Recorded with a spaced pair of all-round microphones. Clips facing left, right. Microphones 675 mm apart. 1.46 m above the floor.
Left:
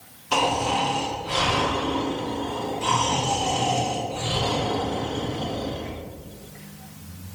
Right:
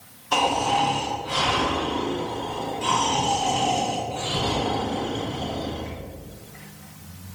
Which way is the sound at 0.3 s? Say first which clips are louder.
Even; 55° left (ahead or behind).